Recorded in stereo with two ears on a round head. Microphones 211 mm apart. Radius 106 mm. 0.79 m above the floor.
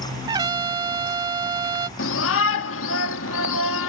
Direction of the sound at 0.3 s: 20° right (ahead or behind).